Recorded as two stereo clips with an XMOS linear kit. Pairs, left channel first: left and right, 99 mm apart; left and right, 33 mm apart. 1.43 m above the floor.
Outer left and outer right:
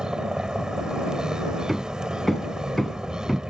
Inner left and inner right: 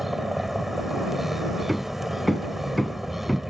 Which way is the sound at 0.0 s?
10° right (ahead or behind).